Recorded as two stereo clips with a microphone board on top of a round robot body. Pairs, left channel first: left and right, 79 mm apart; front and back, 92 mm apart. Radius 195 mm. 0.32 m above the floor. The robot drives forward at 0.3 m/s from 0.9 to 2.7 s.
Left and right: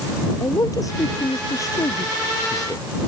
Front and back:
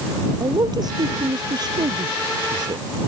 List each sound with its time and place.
0.4 s a man speaking: 135° left; by 2.8 s 140° left